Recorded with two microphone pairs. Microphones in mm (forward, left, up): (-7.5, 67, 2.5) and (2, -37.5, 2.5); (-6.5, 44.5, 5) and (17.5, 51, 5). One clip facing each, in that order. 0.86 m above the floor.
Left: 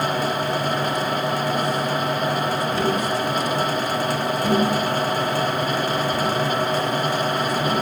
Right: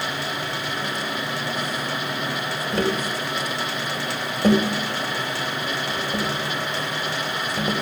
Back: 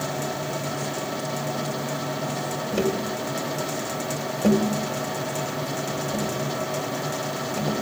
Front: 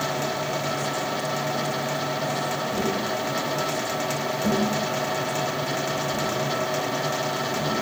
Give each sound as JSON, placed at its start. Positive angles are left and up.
{"t": 2.7, "sound": "tapping", "azimuth_deg": -125, "distance_m": 2.5}